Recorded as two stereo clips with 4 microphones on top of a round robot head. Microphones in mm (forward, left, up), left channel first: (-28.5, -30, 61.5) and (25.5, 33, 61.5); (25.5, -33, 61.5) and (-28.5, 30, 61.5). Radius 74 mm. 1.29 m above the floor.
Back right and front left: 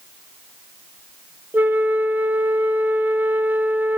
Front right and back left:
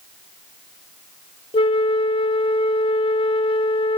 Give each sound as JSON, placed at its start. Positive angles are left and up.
{"t": 1.5, "sound": "a flute", "azimuth_deg": -20, "distance_m": 0.5}